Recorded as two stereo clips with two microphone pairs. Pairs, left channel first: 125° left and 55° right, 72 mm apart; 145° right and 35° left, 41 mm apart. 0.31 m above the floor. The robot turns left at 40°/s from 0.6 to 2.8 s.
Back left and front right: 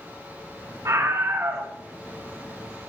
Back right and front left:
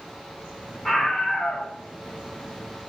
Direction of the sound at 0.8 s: 75° right.